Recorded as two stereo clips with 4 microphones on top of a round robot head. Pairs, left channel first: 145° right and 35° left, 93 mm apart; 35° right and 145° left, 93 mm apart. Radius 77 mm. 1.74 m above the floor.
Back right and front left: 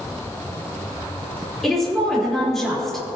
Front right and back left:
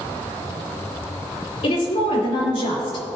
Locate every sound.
1.6 s a woman speaking: 60° right, 4 m